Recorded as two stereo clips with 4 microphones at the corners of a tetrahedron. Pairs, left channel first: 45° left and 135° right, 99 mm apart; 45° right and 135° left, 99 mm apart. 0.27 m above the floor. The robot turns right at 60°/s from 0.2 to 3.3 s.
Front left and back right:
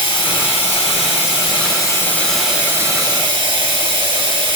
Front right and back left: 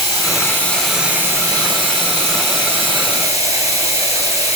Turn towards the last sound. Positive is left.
turn(degrees=-170)